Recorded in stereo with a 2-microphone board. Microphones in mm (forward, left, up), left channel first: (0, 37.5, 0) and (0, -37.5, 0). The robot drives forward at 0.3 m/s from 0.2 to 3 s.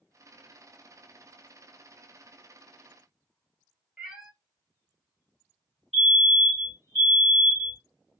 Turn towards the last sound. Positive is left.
turn(degrees=5)  # may be behind; listen again after turning